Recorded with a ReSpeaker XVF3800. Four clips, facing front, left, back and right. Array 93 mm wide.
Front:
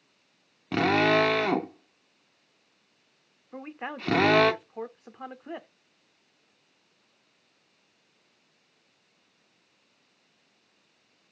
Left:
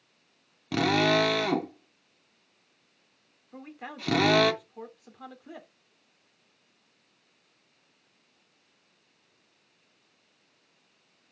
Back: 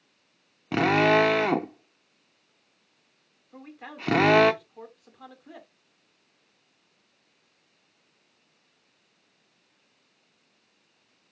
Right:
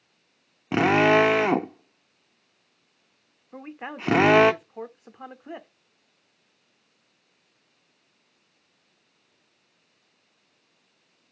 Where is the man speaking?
40° right, 1.1 m.